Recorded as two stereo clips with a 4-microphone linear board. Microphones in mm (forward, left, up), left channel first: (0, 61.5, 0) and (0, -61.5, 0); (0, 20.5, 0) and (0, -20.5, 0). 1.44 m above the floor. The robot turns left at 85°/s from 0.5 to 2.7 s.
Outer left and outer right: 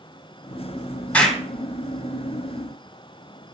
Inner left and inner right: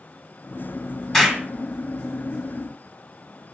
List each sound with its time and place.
1.1 s an explosion: 10° left (ahead or behind), 1.7 m; by 1.4 s 5° right (ahead or behind), 1.7 m